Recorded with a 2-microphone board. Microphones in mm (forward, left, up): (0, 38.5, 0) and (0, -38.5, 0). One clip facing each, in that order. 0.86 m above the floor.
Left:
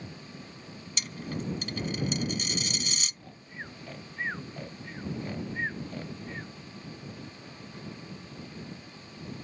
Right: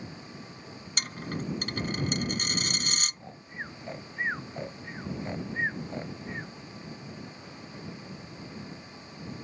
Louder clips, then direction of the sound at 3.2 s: Right 3 dB; 20° right (ahead or behind).